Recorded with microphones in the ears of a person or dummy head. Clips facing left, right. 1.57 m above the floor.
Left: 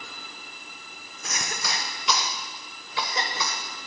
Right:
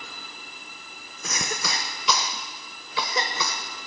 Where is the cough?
70° right (ahead or behind), 0.9 m.